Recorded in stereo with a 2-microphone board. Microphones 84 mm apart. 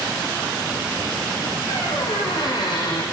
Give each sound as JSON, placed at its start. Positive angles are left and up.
{"t": 1.7, "sound": "a squeak", "side_deg": 65, "distance_m": 2.5}